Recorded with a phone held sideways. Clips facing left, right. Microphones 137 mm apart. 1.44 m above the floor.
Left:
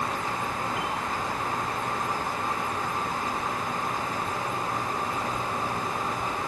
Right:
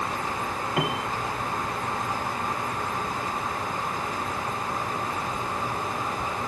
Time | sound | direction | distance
0.8 | a piano | 65° right (ahead or behind) | ?